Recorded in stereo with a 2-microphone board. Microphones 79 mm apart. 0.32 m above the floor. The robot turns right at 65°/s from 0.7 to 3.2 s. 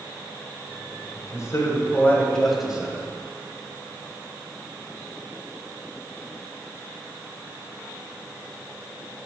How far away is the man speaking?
About 1.9 m.